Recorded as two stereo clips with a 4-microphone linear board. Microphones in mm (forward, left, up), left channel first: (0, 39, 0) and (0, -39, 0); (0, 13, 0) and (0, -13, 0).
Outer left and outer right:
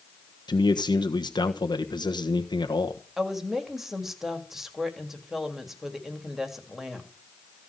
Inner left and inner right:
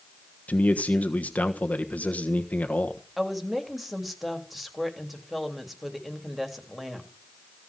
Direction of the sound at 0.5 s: 70° left (ahead or behind).